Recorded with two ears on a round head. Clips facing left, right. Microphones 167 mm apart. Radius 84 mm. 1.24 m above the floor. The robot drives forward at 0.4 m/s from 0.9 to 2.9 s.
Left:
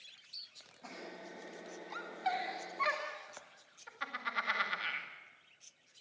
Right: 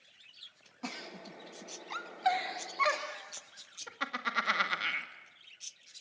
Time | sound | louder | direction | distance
0.8 | a giggle | right 4 dB | 80° right | 2.0 m